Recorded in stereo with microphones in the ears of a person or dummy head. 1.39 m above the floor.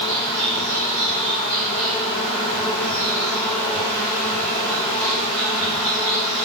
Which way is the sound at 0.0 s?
Centre (ahead or behind).